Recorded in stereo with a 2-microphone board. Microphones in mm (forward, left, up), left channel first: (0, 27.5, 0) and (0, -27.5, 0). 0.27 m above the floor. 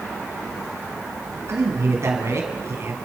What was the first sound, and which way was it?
A man speaking, 55° right (ahead or behind).